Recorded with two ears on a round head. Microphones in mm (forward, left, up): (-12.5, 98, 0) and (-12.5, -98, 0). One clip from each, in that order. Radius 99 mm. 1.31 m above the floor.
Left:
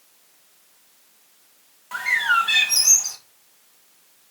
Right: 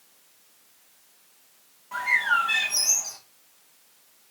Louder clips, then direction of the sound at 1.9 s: Left 3 dB; 75° left (ahead or behind).